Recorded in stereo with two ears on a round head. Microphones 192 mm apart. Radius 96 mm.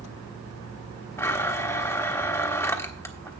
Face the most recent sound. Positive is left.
turn(degrees=10)  # may be behind; listen again after turning